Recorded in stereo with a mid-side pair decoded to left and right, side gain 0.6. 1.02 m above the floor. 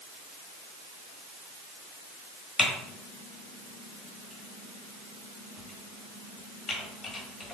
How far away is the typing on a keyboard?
About 1.2 m.